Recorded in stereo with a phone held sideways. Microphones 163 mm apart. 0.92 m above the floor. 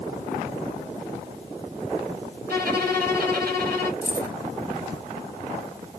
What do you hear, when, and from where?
2.5 s a violin: 70° right (ahead or behind), 2 m
4.0 s keys jangling: 70° right (ahead or behind), 2 m